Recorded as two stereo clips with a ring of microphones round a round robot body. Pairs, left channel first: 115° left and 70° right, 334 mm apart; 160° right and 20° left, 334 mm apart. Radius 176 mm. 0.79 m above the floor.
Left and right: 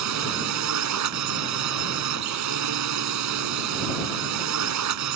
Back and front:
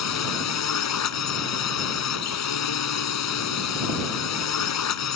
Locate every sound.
0.0 s a drone: 110° right